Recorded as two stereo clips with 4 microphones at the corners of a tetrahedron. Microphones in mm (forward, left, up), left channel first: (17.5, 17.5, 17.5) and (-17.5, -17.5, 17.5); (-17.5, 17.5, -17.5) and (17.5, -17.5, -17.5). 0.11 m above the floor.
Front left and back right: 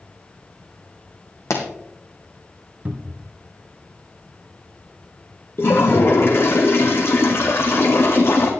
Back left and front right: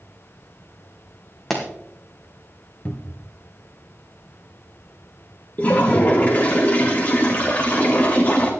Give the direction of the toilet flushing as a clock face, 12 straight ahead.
9 o'clock.